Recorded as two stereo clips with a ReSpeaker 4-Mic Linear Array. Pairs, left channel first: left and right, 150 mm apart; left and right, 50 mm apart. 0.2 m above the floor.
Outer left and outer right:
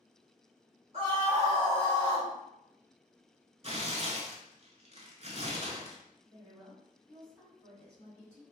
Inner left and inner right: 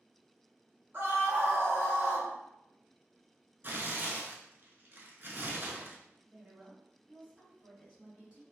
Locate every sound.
0.9 s a scream: 40° right (ahead or behind), 1.5 m; by 2.3 s 30° right (ahead or behind), 1.5 m
3.6 s tearing paper: 45° right (ahead or behind), 0.5 m
6.2 s a woman speaking: 20° right (ahead or behind), 1.6 m